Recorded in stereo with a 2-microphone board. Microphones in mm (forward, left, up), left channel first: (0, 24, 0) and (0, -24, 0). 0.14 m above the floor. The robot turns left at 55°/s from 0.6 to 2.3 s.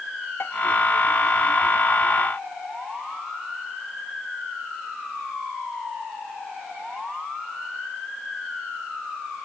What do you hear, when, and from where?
0.4 s dishes clattering: 55° left (ahead or behind)